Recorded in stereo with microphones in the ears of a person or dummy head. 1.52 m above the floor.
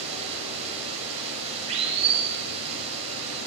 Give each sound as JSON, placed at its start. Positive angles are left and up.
{"t": 0.0, "sound": "running water", "side_deg": -35, "distance_m": 7.0}